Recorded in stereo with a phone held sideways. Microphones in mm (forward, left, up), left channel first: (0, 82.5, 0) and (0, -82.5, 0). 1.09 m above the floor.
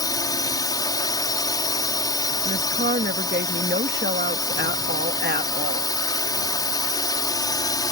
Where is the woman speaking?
85° right.